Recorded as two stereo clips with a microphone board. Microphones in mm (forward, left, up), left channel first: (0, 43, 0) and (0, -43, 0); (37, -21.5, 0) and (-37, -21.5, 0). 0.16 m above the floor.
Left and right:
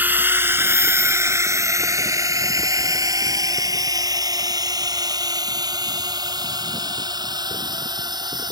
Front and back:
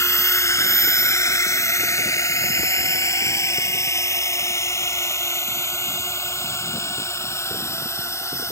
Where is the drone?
30° right; by 8.5 s 55° right.